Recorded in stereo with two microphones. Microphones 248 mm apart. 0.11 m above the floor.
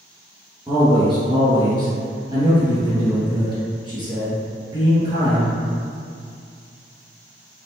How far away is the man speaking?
About 1.7 m.